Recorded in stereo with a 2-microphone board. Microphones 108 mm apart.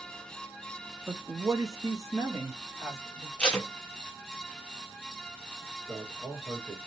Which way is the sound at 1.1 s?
15° right (ahead or behind).